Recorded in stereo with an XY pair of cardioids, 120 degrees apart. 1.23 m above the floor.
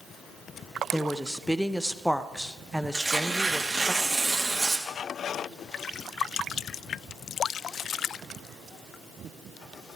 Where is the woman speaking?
Straight ahead, 0.9 m.